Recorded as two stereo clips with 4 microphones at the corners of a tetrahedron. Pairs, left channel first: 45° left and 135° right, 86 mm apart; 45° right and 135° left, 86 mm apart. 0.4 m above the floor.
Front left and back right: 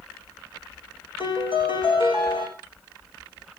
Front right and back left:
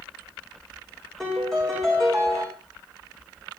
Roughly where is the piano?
Ahead left.